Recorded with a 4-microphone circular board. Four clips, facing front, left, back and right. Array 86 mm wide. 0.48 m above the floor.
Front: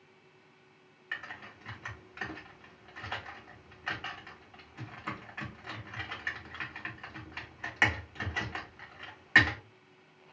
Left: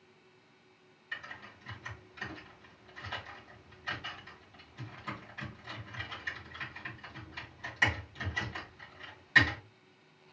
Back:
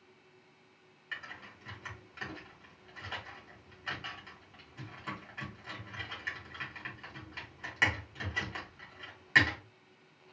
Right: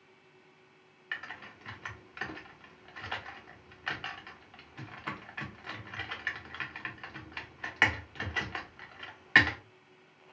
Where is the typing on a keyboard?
65° right, 0.9 m.